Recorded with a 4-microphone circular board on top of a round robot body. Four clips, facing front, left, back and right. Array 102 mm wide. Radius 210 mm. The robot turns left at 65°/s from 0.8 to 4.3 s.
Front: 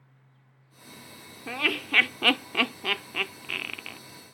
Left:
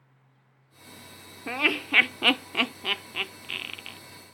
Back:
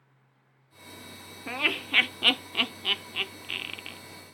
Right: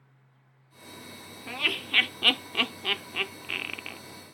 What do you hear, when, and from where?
1.5 s laughter: 100° left, 0.8 m; by 4.0 s 60° right, 0.8 m